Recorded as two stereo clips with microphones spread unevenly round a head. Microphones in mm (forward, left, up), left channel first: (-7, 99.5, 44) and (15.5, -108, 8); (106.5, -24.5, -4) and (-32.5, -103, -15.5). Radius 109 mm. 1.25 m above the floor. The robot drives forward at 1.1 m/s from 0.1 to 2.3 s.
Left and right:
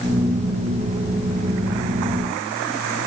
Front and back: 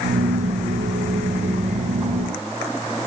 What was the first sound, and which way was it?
Only background noise.